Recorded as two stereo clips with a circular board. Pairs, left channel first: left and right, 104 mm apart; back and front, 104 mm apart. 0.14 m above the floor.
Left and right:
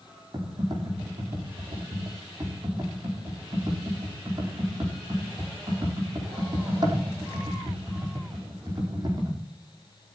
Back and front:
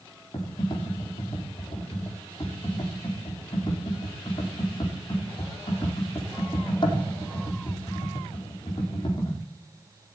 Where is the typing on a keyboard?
140° right, 4.5 m.